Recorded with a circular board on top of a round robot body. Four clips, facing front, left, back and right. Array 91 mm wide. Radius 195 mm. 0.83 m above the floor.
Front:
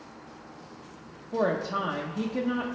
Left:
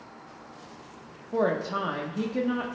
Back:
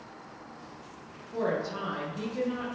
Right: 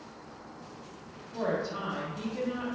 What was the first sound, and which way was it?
A woman speaking, 55° left.